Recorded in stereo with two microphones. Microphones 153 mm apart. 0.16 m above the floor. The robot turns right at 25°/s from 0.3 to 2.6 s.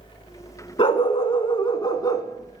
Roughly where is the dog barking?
Left.